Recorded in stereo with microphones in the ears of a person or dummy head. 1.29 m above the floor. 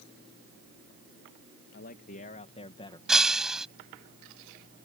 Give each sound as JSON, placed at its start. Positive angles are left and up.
{"t": 1.7, "sound": "a man speaking", "side_deg": 45}
{"t": 3.1, "sound": "breaking glass", "side_deg": -5}